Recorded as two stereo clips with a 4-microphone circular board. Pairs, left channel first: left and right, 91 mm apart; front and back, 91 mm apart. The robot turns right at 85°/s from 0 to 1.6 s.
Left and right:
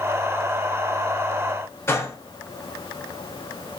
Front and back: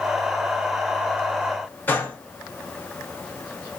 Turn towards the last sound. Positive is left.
turn(degrees=50)